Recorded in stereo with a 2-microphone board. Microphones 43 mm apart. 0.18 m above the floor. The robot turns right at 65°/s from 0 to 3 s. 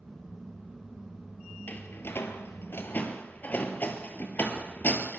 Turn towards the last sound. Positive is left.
turn(degrees=45)  # may be behind; listen again after turning